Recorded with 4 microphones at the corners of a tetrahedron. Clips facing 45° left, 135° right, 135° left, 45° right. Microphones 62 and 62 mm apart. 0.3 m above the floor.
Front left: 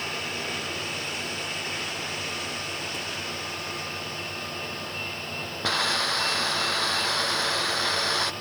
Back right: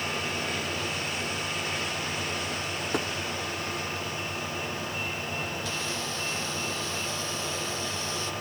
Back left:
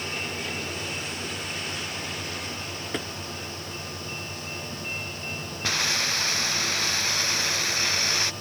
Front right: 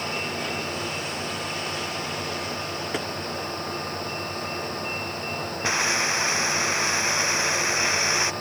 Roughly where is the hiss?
Ahead left.